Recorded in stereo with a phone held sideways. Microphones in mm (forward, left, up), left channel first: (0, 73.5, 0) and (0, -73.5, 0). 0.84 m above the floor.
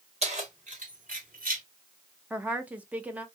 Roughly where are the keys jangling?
Right.